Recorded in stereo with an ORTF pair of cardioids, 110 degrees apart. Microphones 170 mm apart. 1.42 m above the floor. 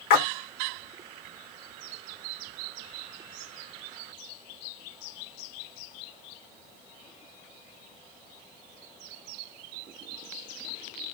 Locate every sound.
0.1 s a splash: 70° left, 1.5 m